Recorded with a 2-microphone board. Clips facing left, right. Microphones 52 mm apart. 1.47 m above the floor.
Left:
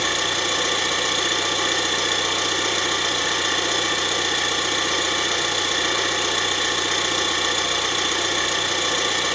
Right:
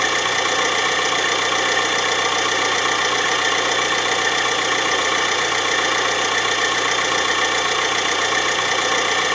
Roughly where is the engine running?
Right.